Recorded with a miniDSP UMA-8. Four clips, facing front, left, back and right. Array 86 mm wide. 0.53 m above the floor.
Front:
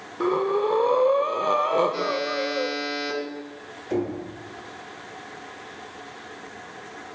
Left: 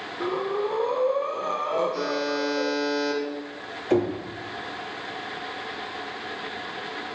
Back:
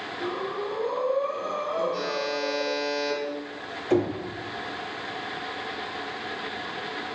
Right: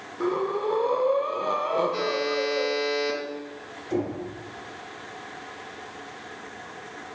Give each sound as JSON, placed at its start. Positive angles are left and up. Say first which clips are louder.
{"t": 0.2, "sound": "breathing", "louder": "right 1 dB, front 9 dB", "azimuth_deg": -5, "distance_m": 0.7}
{"t": 1.9, "sound": "a buzzer", "louder": "even, front 3 dB", "azimuth_deg": -60, "distance_m": 4.0}
{"t": 3.9, "sound": "knocking", "louder": "left 5 dB, back 3 dB", "azimuth_deg": 115, "distance_m": 1.6}